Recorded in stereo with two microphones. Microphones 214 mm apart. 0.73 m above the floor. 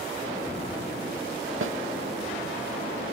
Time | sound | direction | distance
1.6 | a snare drum | 70° right (ahead or behind) | 0.9 m